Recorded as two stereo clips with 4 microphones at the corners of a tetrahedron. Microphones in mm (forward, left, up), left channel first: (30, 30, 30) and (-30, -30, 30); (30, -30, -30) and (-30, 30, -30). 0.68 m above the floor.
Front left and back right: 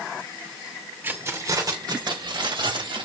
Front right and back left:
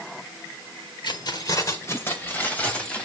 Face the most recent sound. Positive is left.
turn(degrees=-125)